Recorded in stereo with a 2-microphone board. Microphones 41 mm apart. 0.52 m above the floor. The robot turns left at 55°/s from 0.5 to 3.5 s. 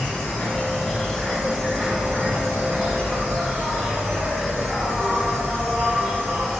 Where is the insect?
45° left, 1.5 m; by 6.6 s 120° right, 1.5 m.